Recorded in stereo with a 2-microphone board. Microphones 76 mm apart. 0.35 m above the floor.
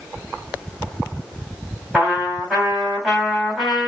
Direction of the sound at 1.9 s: Centre (ahead or behind).